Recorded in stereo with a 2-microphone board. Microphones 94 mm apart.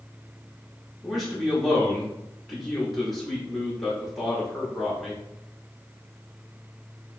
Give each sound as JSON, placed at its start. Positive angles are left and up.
{"t": 1.0, "sound": "a man speaking", "side_deg": 0, "distance_m": 0.9}